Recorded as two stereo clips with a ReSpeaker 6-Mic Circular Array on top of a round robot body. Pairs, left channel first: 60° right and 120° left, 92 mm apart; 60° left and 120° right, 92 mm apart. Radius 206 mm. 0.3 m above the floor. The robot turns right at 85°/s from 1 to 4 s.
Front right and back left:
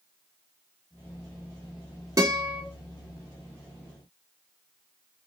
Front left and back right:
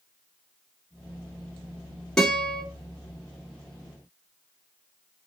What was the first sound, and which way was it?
A guitar, 140° left.